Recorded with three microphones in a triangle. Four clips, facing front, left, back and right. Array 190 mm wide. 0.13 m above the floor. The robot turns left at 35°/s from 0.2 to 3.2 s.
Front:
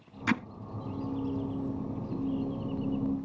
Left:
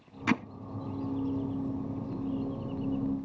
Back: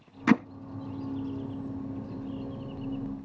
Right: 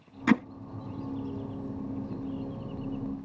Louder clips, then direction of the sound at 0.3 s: Right 5 dB, back 7 dB; 155° right.